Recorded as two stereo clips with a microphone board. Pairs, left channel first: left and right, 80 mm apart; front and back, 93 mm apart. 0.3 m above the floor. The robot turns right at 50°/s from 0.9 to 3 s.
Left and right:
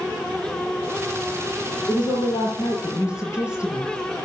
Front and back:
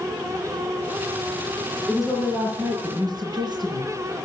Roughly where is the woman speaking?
Left.